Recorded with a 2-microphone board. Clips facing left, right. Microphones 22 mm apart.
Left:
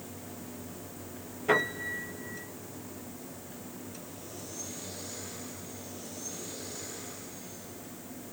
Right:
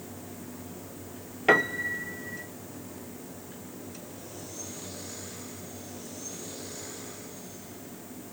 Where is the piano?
60° right (ahead or behind), 0.9 m.